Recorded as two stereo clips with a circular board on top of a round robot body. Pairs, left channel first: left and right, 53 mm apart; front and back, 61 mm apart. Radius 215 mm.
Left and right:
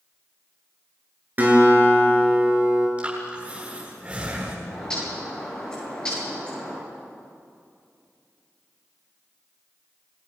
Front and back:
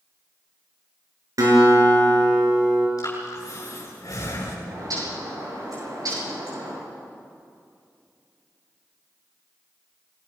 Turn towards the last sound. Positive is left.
turn(degrees=165)